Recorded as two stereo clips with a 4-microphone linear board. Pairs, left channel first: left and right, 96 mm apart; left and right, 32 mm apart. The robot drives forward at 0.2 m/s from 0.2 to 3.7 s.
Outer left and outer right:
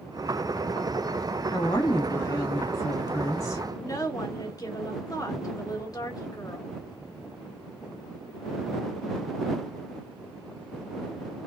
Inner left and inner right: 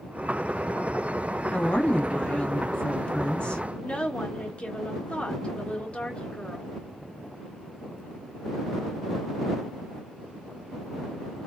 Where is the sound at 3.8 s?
40° left (ahead or behind), 1.3 m.